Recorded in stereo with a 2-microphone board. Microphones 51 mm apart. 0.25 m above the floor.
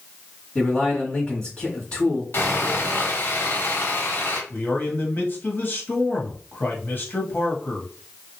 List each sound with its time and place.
0.6 s a man speaking: 25° left (ahead or behind), 1.4 m
2.3 s sawing: 50° left (ahead or behind), 1.4 m
4.5 s a man speaking: 40° left (ahead or behind), 1.1 m